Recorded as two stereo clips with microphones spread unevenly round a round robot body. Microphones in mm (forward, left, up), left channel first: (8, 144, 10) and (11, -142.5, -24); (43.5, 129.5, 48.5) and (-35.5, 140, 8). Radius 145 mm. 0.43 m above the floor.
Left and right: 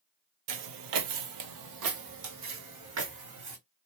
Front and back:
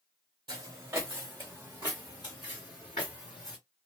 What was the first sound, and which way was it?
Footsteps, 110° right.